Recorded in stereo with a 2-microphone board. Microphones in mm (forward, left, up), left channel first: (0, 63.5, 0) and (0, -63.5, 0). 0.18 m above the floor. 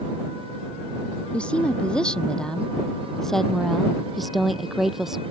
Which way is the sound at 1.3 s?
10° left (ahead or behind).